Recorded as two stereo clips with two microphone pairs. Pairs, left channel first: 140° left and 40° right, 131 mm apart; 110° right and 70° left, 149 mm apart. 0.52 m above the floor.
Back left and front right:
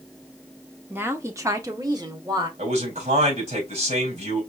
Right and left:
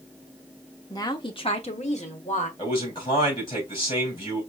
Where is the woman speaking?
85° right, 0.8 m; by 2.5 s 90° right, 1.4 m.